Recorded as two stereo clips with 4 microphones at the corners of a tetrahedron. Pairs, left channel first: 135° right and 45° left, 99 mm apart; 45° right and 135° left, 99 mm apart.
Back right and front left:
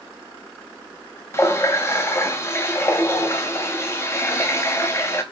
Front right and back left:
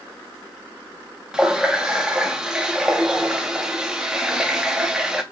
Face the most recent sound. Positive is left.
turn(degrees=-150)